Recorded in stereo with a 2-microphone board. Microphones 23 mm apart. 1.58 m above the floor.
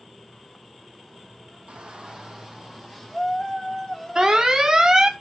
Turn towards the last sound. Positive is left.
turn(degrees=-35)  # may be behind; listen again after turning